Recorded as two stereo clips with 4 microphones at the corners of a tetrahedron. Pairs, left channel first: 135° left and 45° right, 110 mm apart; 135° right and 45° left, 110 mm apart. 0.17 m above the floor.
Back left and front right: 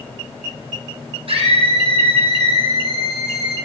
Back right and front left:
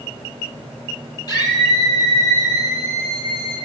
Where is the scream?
80° right, 6.5 m.